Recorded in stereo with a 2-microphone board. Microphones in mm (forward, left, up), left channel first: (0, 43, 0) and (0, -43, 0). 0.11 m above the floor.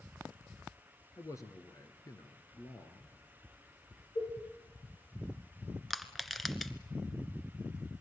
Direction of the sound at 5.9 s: Centre (ahead or behind).